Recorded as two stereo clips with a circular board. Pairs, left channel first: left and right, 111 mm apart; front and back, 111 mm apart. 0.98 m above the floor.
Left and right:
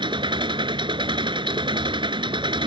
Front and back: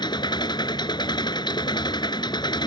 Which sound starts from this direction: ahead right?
An engine running, at 0.0 s.